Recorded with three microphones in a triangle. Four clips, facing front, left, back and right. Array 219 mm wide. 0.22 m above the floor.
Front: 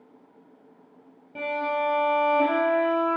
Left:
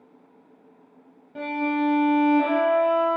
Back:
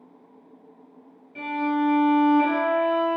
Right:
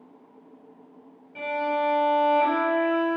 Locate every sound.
1.4 s a violin: 30° left, 3.5 m